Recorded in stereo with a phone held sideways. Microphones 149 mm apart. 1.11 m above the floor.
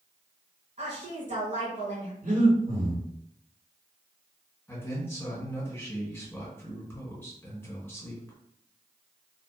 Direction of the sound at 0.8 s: 55° right (ahead or behind).